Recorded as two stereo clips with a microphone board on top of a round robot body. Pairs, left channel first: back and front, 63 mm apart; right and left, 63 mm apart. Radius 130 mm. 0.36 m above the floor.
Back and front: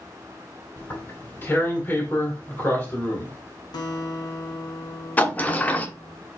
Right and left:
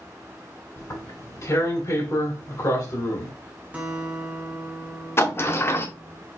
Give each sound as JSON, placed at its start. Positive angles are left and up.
{"t": 0.8, "sound": "tearing paper", "azimuth_deg": -125, "distance_m": 2.5}
{"t": 3.7, "sound": "a guitar", "azimuth_deg": 160, "distance_m": 1.0}
{"t": 5.2, "sound": "a sliding door", "azimuth_deg": -125, "distance_m": 0.9}